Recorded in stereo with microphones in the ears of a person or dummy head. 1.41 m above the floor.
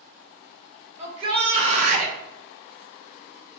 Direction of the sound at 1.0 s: 35° right (ahead or behind).